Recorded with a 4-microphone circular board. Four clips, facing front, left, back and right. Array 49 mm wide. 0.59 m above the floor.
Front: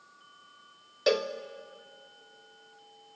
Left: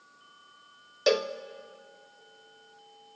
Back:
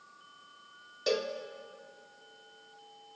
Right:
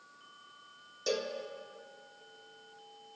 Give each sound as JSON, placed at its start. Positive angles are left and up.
{"t": 1.1, "sound": "a cowbell", "azimuth_deg": 55, "distance_m": 0.5}